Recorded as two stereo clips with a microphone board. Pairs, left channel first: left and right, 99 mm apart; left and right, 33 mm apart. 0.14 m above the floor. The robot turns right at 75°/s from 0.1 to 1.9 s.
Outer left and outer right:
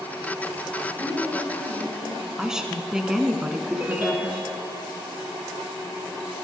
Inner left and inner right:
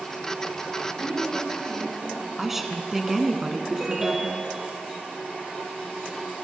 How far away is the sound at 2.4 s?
About 1.2 m.